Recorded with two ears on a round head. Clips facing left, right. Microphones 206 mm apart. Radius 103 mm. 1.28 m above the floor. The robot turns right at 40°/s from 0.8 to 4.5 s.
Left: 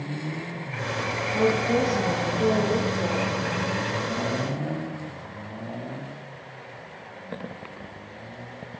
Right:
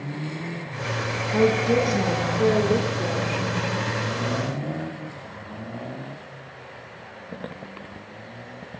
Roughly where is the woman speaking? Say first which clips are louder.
Right 3 dB; right.